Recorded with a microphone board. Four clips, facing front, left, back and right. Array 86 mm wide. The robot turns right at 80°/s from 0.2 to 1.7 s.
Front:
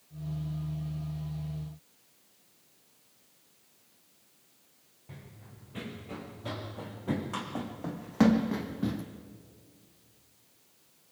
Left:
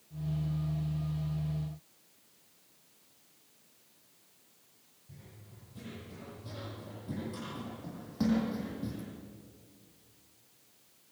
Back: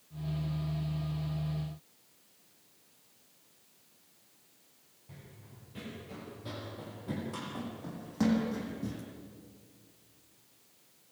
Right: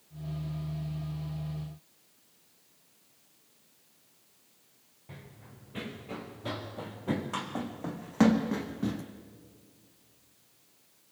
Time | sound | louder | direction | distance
5.1 | running footsteps | right 5 dB, front 3 dB | 65° right | 5.5 m